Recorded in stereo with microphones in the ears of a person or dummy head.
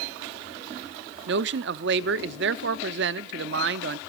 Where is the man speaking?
60° right (ahead or behind), 0.5 m.